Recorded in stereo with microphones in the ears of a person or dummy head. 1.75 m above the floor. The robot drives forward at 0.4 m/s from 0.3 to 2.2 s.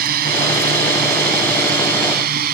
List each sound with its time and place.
0.0 s a drone: 50° right (ahead or behind)